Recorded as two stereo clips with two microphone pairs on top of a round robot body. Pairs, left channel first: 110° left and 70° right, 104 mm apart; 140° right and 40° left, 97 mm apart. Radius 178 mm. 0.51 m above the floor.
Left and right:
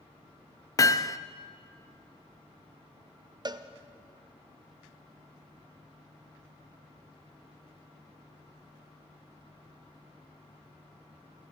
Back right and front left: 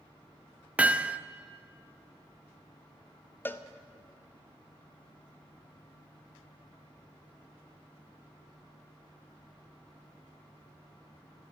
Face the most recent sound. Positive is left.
turn(degrees=-90)